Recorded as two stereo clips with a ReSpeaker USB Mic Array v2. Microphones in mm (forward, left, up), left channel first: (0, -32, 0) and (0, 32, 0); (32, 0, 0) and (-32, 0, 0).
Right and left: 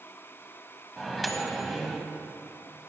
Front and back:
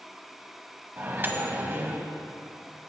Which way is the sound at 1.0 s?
Straight behind.